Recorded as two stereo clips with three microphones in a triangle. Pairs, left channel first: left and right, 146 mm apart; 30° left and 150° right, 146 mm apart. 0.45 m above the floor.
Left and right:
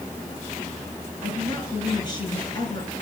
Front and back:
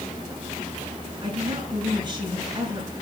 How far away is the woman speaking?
About 6.5 m.